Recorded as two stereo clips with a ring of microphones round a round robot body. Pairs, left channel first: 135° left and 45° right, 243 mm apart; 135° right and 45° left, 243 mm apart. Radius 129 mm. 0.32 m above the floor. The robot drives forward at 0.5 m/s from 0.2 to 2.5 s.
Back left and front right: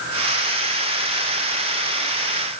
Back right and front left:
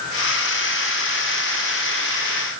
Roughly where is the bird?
No bird in this recording.